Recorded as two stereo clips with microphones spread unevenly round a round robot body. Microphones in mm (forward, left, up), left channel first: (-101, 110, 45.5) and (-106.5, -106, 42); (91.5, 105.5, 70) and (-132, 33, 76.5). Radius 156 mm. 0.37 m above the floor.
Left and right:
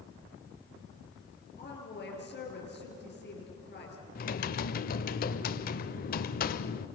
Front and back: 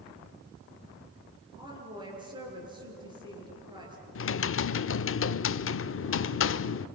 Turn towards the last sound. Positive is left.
turn(degrees=40)